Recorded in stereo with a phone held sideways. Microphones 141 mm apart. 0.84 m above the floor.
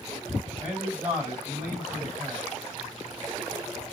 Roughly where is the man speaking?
Centre.